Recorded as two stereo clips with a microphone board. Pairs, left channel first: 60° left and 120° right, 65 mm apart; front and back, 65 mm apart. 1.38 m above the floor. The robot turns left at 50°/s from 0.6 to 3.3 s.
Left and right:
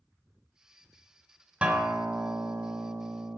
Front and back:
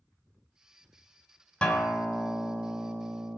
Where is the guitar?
60° right, 1.4 m; by 3.4 s 145° right, 1.4 m.